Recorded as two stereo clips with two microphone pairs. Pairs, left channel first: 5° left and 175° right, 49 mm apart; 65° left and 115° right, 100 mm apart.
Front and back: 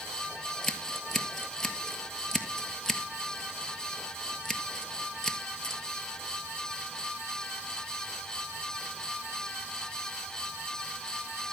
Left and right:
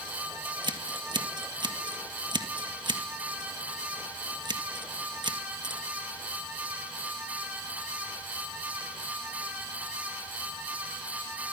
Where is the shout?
I don't hear a shout.